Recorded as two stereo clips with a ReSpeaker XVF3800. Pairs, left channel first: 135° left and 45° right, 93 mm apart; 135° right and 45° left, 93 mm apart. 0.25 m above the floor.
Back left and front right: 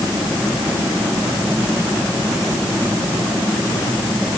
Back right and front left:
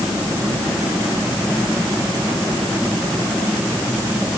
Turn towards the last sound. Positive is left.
No sound to turn to.